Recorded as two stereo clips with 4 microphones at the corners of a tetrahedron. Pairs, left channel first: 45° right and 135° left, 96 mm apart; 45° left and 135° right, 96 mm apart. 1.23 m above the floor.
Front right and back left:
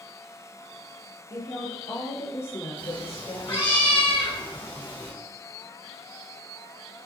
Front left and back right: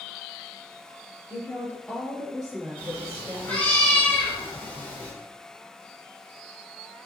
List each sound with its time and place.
1.3 s a woman speaking: straight ahead, 0.7 m; by 3.8 s 80° right, 1.3 m
2.8 s a cat meowing: 30° right, 1.3 m